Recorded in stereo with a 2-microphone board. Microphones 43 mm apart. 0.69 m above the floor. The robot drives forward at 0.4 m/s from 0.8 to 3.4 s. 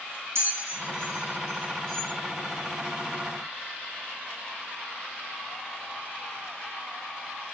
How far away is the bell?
About 3 m.